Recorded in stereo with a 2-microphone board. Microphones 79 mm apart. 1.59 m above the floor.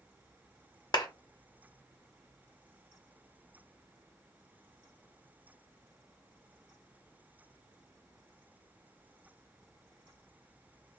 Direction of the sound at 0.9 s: 55° left (ahead or behind).